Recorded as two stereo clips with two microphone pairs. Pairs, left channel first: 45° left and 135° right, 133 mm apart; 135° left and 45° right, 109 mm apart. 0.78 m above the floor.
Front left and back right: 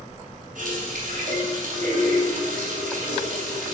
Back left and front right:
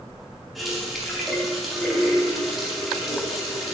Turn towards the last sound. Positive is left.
turn(degrees=-135)